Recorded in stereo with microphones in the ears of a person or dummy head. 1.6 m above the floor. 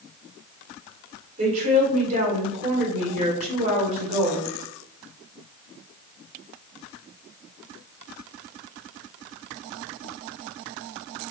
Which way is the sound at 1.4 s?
45° right (ahead or behind).